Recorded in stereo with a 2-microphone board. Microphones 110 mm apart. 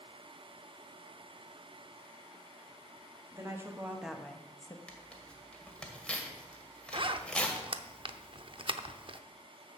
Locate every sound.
3.3 s a woman speaking: 30° right (ahead or behind), 1.9 m; by 4.8 s 35° left (ahead or behind), 1.1 m
4.9 s tearing paper: 10° left (ahead or behind), 1.8 m
6.9 s a zipper: 50° right (ahead or behind), 0.6 m